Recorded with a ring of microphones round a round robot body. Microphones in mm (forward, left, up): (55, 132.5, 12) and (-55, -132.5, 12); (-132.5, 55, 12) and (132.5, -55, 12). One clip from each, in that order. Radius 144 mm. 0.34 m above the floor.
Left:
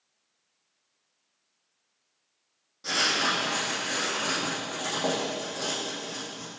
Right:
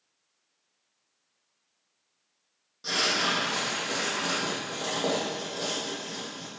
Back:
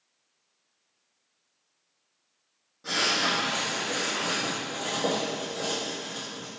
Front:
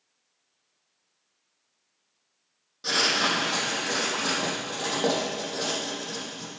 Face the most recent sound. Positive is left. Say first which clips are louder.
# left 1 dB, front 2 dB
turn(degrees=-30)